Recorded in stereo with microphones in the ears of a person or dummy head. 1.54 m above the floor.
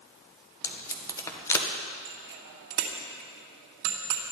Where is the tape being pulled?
15° left (ahead or behind), 1.2 m.